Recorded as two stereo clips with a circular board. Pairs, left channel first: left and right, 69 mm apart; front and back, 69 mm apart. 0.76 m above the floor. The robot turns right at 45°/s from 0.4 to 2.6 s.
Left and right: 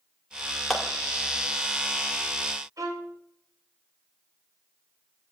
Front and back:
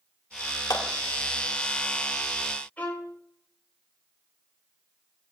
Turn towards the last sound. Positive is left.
turn(degrees=-65)